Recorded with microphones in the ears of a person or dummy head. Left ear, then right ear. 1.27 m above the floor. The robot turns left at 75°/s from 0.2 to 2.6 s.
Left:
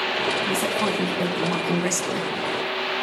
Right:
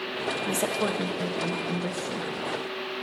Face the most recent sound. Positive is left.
turn(degrees=60)